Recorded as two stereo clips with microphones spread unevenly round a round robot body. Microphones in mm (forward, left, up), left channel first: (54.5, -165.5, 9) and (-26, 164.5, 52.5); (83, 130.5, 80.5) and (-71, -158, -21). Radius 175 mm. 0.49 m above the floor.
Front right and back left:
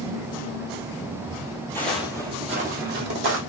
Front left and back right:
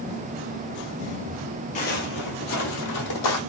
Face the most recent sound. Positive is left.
turn(degrees=55)